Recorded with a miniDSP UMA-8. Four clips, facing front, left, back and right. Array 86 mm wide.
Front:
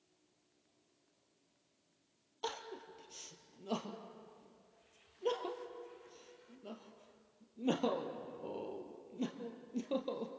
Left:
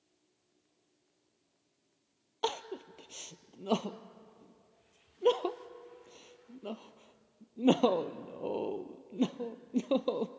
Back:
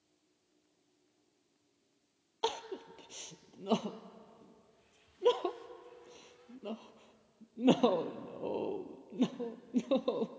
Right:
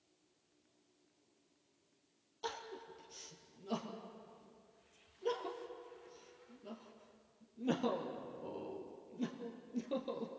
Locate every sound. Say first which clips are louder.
2.4 s crying: left 9 dB, back 7 dB; 120° left, 1.1 m